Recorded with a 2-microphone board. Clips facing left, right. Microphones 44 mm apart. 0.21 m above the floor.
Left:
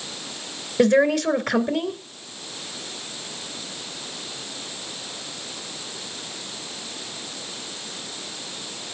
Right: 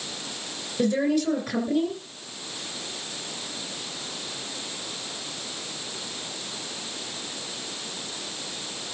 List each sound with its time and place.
0.8 s a woman speaking: 55° left (ahead or behind), 2.5 m